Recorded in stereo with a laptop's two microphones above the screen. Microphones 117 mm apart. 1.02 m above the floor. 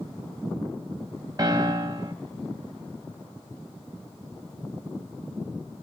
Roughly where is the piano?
Right.